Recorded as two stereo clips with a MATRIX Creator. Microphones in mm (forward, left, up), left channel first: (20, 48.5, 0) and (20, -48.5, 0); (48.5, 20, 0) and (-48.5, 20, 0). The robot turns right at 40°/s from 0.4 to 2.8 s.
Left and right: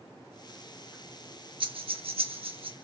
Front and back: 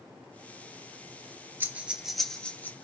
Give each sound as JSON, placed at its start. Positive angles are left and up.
{"t": 1.6, "sound": "breathing", "azimuth_deg": -115, "distance_m": 1.6}